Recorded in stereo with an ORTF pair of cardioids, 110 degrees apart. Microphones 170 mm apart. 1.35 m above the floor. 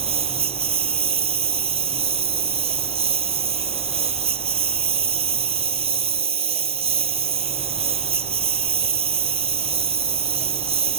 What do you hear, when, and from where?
0.0 s a lawn mower: 35° right